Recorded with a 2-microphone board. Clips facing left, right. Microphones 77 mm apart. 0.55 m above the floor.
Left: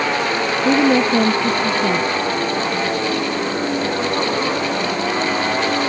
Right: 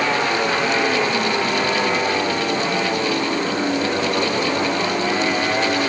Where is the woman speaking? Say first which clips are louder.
Left 5 dB; 80° left.